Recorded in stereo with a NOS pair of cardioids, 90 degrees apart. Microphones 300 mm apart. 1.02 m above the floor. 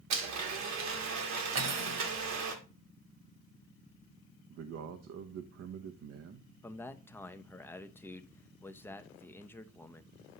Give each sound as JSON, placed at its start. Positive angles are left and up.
{"t": 0.1, "sound": "a blender", "azimuth_deg": -70, "distance_m": 1.5}
{"t": 1.6, "sound": "cutlery clinking", "azimuth_deg": -65, "distance_m": 1.7}
{"t": 4.5, "sound": "a man speaking", "azimuth_deg": -65, "distance_m": 0.8}
{"t": 6.6, "sound": "a man speaking", "azimuth_deg": 10, "distance_m": 0.7}